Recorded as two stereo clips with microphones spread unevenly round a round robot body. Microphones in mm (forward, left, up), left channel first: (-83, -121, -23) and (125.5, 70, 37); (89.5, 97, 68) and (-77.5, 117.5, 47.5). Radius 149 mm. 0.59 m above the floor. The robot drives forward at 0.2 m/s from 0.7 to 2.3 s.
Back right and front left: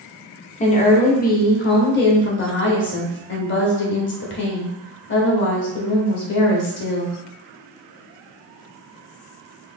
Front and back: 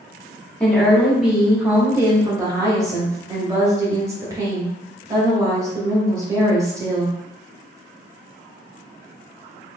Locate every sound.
0.6 s a woman speaking: 95° right, 0.8 m; by 7.2 s 125° right, 0.8 m